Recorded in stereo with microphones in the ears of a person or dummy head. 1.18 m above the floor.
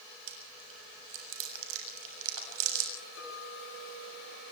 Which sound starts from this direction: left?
A clink, at 3.2 s.